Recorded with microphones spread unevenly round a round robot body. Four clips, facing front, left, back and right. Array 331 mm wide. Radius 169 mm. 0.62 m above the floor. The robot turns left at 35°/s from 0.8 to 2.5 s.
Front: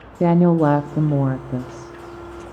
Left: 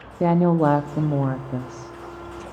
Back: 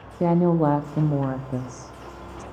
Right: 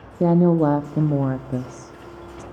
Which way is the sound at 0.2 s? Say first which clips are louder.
Right 1 dB, front 4 dB; 25° right.